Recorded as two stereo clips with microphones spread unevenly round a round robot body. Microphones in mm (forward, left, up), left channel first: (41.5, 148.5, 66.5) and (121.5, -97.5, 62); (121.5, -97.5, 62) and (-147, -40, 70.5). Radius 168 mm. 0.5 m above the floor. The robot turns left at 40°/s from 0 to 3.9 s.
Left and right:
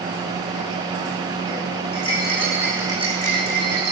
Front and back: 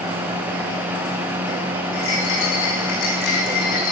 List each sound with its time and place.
1.9 s a rattle: 40° left, 9.5 m; by 3.9 s 35° right, 9.5 m